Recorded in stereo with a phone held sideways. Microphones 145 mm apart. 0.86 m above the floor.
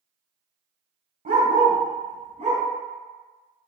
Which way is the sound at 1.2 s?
65° right (ahead or behind).